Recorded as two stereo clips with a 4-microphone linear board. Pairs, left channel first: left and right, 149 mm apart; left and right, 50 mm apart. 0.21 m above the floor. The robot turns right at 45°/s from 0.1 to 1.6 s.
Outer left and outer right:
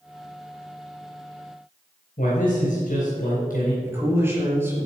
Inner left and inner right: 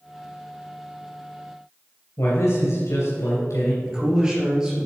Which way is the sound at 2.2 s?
65° left (ahead or behind).